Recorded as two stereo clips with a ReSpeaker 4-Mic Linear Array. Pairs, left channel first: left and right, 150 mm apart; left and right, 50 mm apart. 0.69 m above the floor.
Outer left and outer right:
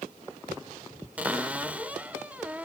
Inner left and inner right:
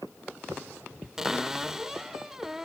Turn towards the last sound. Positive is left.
turn(degrees=-10)  # may be behind; listen again after turning